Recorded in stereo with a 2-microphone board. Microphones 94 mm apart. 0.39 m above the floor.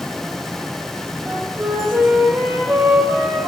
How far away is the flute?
About 6 m.